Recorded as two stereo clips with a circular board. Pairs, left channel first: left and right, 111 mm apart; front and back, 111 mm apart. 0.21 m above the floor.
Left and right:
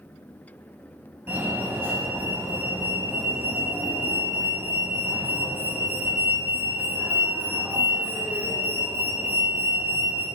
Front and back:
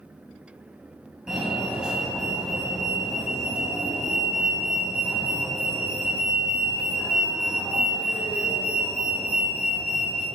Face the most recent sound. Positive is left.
turn(degrees=-105)